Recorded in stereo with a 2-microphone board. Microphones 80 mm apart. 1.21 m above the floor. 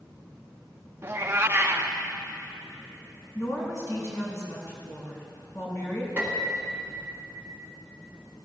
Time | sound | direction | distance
1.0 | a cat meowing | 30° right (ahead or behind) | 0.7 m
3.4 | a woman speaking | 45° left (ahead or behind) | 5 m
6.2 | a piano | 20° right (ahead or behind) | 2.5 m